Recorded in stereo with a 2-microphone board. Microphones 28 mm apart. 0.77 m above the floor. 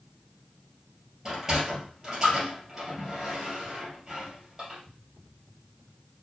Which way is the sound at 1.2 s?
15° right (ahead or behind).